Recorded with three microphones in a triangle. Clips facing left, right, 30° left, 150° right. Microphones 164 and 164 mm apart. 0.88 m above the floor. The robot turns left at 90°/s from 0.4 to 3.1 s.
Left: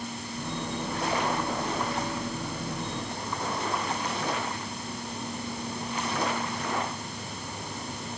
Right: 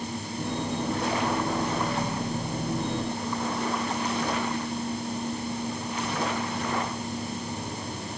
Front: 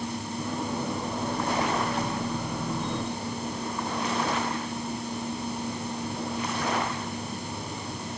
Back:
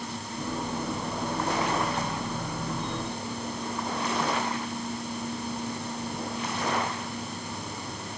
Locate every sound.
Only background noise.